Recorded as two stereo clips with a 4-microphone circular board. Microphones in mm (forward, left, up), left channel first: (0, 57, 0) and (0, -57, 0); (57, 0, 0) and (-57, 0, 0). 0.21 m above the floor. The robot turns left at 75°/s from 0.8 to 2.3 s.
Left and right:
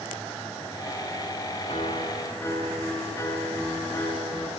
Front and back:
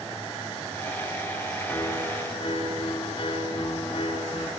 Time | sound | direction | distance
1.7 | a piano | 75° left | 2.5 m